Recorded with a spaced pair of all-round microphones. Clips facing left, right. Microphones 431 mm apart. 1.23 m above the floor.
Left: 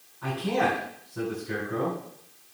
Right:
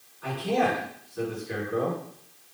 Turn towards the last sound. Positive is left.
turn(degrees=85)